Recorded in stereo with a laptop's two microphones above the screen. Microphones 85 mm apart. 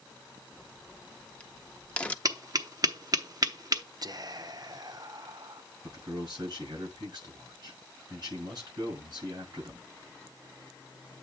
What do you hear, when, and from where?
0.5 s a crack: 15° left (ahead or behind), 0.6 m
2.2 s tapping: 45° right (ahead or behind), 0.8 m
4.0 s whispering: 50° right (ahead or behind), 0.6 m
5.8 s a man speaking: 50° right (ahead or behind), 6 m